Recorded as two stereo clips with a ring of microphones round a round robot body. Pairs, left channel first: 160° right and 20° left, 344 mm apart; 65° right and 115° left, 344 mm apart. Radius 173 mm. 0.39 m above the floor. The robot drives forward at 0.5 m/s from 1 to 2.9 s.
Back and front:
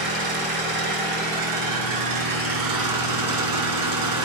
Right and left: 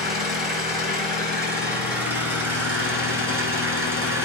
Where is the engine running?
45° left, 4 m; by 4.3 s 55° left, 3.5 m.